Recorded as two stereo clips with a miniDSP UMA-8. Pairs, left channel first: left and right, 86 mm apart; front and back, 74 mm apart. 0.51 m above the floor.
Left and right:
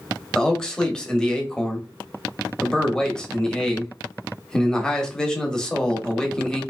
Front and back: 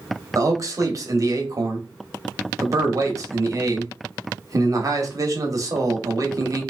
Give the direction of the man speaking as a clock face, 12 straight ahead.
6 o'clock.